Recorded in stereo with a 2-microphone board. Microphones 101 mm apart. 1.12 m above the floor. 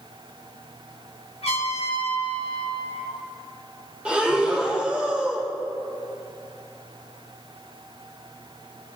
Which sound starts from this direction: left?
A trumpet, at 1.4 s.